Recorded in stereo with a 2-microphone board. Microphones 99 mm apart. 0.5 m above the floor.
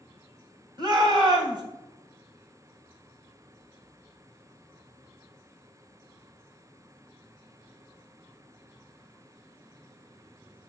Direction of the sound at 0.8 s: 50° right (ahead or behind).